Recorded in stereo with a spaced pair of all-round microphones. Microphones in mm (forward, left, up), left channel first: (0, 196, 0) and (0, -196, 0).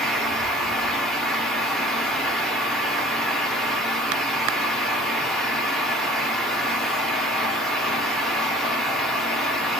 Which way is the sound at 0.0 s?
Centre (ahead or behind).